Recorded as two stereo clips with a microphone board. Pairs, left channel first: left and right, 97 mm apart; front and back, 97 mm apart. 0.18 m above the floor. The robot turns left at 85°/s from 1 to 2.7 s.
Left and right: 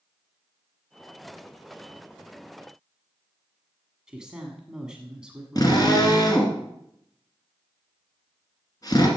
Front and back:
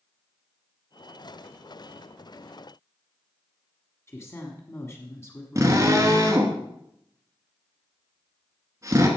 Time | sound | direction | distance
4.1 | a woman speaking | 15° right | 1.4 m
5.5 | a drill | 130° left | 2.5 m